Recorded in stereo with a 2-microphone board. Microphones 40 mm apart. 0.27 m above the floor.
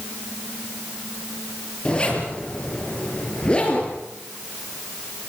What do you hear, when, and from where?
1.9 s a zipper: 25° left (ahead or behind), 6 m